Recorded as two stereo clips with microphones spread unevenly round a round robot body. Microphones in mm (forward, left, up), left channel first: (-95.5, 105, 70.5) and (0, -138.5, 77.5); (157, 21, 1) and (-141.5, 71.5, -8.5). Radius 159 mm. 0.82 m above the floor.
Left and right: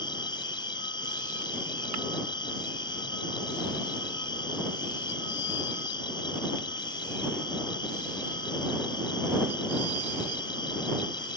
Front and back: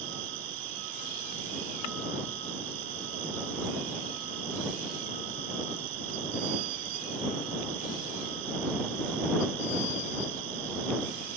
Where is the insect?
175° right.